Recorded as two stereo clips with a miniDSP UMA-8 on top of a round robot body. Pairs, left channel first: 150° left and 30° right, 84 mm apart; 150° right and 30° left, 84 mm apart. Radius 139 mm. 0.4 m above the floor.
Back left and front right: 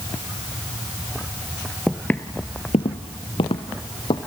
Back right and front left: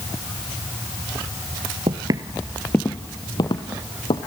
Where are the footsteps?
65° left, 0.7 m; by 4.2 s straight behind, 1.5 m.